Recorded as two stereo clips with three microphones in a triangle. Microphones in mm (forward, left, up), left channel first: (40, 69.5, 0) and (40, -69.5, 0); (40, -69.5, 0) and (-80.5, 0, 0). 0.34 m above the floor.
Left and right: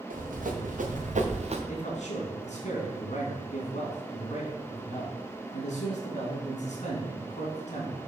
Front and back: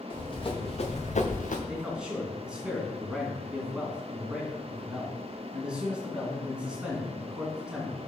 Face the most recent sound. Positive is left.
turn(degrees=70)